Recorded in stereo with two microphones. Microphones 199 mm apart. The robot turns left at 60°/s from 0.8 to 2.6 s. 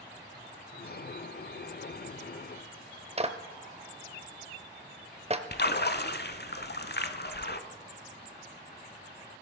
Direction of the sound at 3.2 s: 30° right (ahead or behind).